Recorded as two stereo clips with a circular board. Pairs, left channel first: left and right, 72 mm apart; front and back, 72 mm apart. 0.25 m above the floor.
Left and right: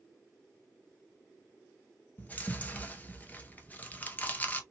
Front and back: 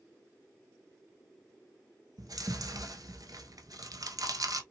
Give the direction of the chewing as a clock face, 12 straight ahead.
7 o'clock.